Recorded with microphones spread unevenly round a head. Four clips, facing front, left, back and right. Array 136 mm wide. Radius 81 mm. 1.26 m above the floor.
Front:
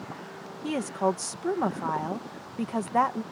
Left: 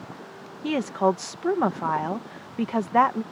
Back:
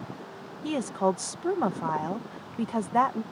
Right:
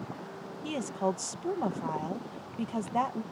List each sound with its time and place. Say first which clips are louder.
0.6 s a woman speaking: left 9 dB, back 1 dB; 90° left